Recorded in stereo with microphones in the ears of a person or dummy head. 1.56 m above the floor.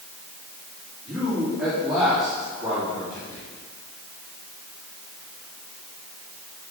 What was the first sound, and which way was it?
A man speaking, 5° right (ahead or behind).